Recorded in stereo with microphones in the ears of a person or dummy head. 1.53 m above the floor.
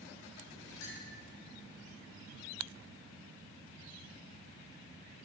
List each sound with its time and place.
0.8 s a clink: 75° left (ahead or behind), 2.5 m